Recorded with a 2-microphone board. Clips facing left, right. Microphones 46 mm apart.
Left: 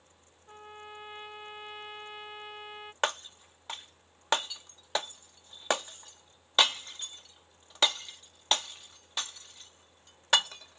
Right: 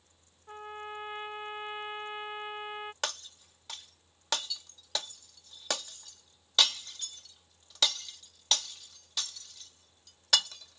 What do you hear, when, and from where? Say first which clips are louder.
0.5 s a trumpet: right 5 dB; 20° right (ahead or behind)
3.0 s breaking glass: left 6 dB; 30° left (ahead or behind)